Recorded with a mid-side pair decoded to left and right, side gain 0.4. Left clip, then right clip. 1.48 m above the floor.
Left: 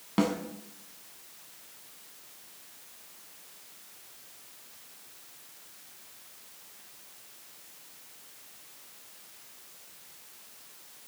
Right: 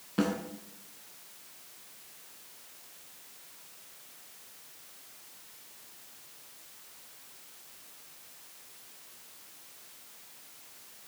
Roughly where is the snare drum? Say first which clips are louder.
Left 2 dB; left.